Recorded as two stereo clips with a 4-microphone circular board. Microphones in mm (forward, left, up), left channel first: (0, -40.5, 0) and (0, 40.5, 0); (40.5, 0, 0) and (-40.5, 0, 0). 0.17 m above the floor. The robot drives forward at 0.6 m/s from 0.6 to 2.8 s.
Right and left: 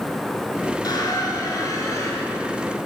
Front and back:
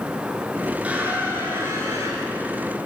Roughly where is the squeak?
Right.